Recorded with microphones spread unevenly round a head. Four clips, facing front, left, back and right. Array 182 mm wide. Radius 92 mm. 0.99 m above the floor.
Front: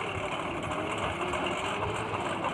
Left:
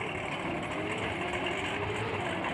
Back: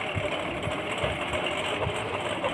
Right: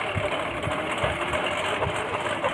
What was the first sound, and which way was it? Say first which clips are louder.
A lawn mower: right 8 dB, back 3 dB; 125° right.